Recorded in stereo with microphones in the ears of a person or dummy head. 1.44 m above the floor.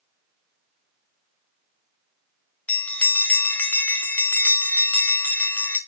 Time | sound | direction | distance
2.7 | a bell | 5° left (ahead or behind) | 0.8 m